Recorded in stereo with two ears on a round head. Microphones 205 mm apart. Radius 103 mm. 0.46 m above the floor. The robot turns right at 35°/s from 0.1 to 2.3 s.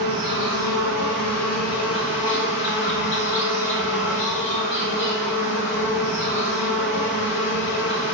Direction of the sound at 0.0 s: 50° left.